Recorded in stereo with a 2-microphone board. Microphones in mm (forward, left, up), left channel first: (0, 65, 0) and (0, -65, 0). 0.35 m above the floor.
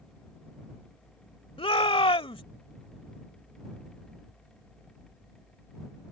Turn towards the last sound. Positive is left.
turn(degrees=45)  # may be behind; listen again after turning